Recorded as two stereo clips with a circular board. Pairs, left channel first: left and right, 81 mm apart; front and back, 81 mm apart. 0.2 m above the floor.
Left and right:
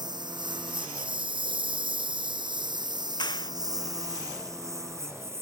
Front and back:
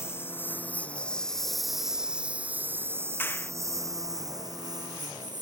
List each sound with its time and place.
0.0 s a lawn mower: 60° right; by 5.4 s 145° right
3.2 s a clap: 65° left